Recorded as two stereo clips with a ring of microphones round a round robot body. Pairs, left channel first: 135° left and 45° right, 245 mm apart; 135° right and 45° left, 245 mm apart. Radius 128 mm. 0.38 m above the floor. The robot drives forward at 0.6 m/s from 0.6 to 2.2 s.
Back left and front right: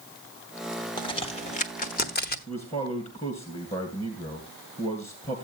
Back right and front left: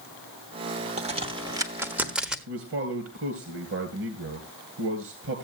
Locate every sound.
1.0 s a crack: 80° left, 1.3 m; by 2.4 s 130° left, 1.5 m
2.5 s a man speaking: 75° left, 2.5 m